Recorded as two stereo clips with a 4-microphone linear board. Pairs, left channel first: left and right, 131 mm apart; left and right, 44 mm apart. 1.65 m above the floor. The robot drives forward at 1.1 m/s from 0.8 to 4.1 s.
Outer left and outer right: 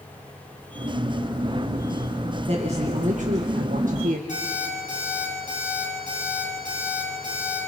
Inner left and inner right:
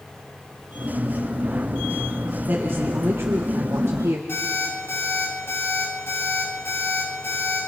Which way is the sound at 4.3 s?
60° left (ahead or behind).